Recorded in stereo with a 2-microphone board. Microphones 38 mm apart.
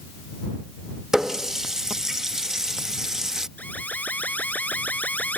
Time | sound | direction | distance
1.1 | a running tap | 15° right (ahead or behind) | ?
3.6 | an alarm | 40° left (ahead or behind) | ?